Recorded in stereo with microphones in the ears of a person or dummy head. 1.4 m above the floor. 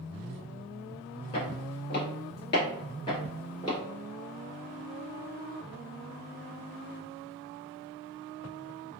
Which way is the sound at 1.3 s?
30° left (ahead or behind).